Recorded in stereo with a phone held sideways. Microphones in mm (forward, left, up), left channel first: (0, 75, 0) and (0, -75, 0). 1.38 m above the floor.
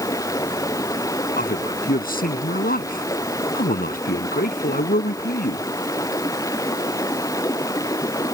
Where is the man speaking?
75° left (ahead or behind).